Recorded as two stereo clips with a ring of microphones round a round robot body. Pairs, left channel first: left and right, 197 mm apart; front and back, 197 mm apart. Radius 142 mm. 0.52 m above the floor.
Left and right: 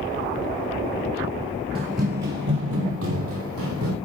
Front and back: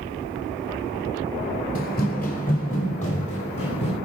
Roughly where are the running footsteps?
Ahead right.